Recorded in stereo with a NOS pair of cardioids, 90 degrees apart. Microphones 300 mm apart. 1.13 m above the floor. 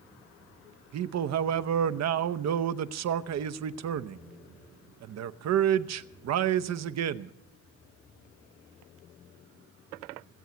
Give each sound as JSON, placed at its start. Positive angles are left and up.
{"t": 0.9, "sound": "a man speaking", "azimuth_deg": -60, "distance_m": 0.8}